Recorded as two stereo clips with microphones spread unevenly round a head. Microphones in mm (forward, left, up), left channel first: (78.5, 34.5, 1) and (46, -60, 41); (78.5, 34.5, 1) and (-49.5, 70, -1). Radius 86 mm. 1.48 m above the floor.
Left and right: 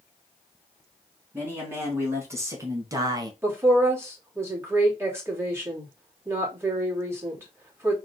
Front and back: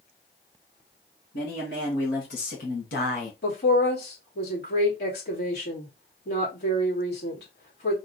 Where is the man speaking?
40° right, 2 m; by 3.3 s 65° right, 0.8 m.